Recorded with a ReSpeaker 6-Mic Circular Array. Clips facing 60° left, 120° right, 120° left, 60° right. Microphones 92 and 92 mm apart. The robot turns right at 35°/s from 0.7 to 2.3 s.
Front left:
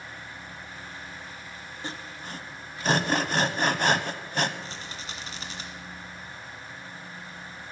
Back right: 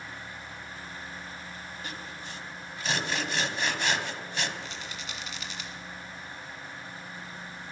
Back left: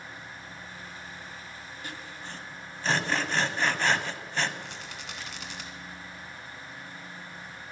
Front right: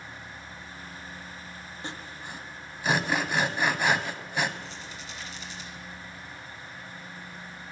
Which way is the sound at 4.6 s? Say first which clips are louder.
Front left 1 dB, even; 110° left.